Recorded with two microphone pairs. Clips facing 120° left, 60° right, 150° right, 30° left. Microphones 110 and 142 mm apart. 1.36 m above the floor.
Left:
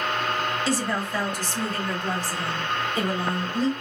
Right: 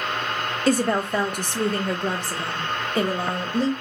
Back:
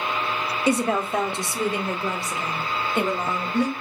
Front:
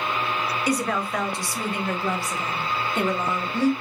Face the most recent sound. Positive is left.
turn(degrees=-80)